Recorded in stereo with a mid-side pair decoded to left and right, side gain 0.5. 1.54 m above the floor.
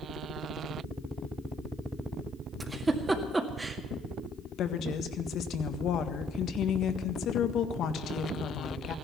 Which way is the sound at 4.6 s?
65° left.